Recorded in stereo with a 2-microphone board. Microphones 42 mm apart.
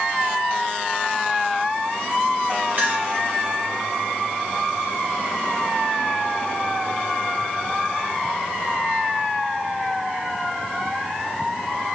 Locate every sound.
2.8 s a clink: 45° right (ahead or behind), 1.3 m